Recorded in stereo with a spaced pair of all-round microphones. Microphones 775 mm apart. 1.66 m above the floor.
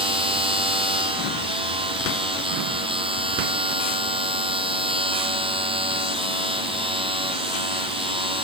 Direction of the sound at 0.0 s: 5° right (ahead or behind).